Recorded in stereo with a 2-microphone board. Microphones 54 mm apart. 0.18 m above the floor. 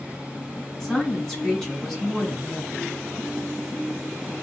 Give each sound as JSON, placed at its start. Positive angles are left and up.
{"t": 0.8, "sound": "a woman speaking", "side_deg": 5, "distance_m": 1.5}